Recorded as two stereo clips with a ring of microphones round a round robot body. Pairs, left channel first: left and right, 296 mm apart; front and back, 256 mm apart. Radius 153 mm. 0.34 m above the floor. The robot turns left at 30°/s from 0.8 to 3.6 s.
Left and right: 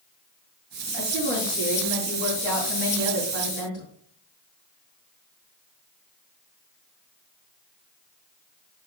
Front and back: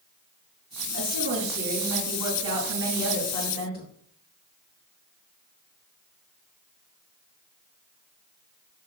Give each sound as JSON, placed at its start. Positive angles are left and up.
{"t": 0.9, "sound": "a woman speaking", "azimuth_deg": 150, "distance_m": 4.5}